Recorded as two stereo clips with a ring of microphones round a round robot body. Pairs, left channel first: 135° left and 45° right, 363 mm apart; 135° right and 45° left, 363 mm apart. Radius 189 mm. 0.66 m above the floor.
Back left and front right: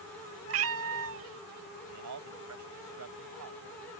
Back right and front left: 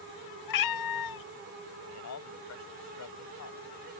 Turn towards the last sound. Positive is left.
turn(degrees=-90)